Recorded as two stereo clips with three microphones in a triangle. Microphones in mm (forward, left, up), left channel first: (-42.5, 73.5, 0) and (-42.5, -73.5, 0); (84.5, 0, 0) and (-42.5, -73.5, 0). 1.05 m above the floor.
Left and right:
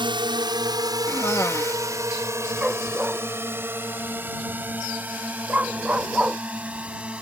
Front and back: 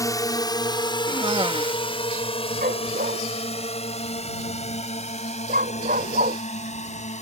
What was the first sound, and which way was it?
A drone, 35° right.